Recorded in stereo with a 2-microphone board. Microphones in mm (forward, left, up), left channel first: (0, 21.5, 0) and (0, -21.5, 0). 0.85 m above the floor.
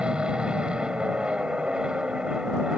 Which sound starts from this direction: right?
An aircraft, at 0.0 s.